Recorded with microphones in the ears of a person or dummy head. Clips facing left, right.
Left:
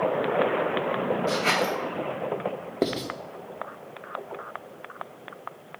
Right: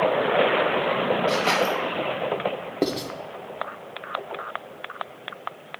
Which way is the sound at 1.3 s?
60° left (ahead or behind).